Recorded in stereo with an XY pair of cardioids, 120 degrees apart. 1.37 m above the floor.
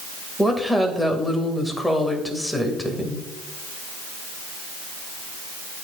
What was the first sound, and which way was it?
A woman speaking, 5° left.